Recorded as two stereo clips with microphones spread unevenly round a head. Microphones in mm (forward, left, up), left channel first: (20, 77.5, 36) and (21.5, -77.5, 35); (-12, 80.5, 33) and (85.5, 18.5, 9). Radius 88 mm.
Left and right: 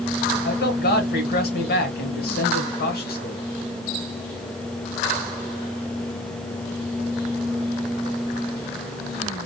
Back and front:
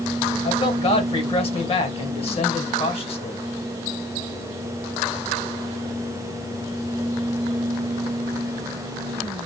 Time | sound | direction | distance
0.4 | a man speaking | 110° left | 1.9 m